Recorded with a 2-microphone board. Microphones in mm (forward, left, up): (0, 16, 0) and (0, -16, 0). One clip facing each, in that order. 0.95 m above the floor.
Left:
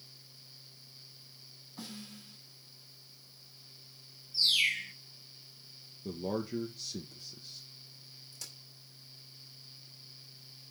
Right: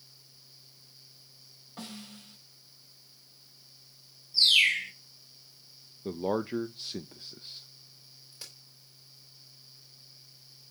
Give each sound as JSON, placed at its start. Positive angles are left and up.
{"t": 1.8, "sound": "a snare drum", "side_deg": -55, "distance_m": 4.0}
{"t": 4.3, "sound": "a bird", "side_deg": -70, "distance_m": 2.0}
{"t": 6.0, "sound": "a man speaking", "side_deg": -40, "distance_m": 0.5}
{"t": 8.3, "sound": "a crack", "side_deg": -30, "distance_m": 3.0}